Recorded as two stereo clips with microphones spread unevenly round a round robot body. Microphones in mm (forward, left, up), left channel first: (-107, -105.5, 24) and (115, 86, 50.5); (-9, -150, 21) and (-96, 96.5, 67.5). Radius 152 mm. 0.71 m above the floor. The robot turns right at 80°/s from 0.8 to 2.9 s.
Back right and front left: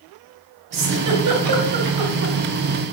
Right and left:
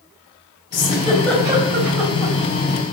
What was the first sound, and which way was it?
A giggle, 20° right.